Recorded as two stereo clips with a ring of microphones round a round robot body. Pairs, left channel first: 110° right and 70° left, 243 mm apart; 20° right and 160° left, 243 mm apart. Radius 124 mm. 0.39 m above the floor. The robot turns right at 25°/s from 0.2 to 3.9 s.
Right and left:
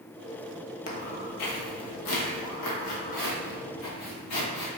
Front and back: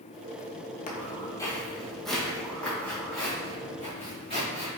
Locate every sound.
0.9 s footsteps: 70° right, 0.6 m; by 4.7 s 90° right, 2.5 m